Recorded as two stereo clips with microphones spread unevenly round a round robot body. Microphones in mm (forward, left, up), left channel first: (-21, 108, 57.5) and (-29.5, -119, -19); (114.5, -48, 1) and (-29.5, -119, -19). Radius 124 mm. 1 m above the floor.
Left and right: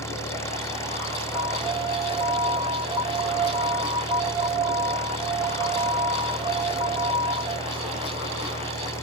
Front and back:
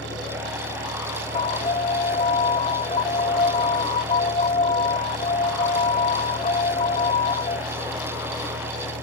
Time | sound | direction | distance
0.0 | an engine running | 165° left | ?
1.4 | an alarm | 20° right | ?